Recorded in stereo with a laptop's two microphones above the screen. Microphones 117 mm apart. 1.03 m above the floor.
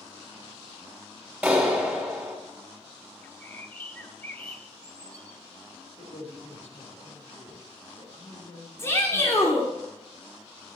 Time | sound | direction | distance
1.4 | a clap | 10° right (ahead or behind) | 3.5 m
3.2 | a bird | 15° left (ahead or behind) | 1.2 m
6.0 | a man speaking | 70° left (ahead or behind) | 4 m
8.8 | a shout | 25° left (ahead or behind) | 2.5 m